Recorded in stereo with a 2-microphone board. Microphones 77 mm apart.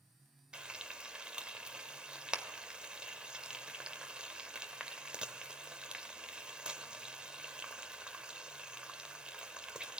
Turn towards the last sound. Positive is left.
turn(degrees=-15)  # may be behind; listen again after turning